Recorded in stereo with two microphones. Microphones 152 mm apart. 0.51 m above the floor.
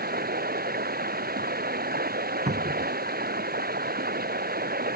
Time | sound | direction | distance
0.0 | running water | 80° right | ?
2.5 | a cupboard door | 50° right (ahead or behind) | ?